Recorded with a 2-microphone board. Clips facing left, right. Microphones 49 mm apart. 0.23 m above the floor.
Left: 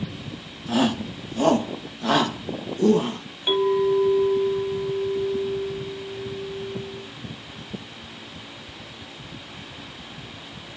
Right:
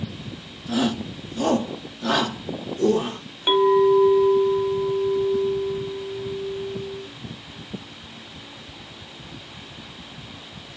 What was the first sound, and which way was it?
A shout, 40° left (ahead or behind).